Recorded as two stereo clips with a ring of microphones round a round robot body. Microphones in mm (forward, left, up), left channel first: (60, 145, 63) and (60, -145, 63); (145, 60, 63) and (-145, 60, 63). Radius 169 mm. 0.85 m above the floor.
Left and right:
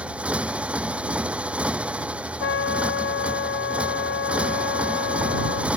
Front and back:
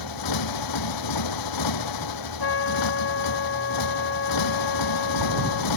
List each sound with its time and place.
0.0 s a motorcycle: 5° right
2.4 s a trumpet: 45° left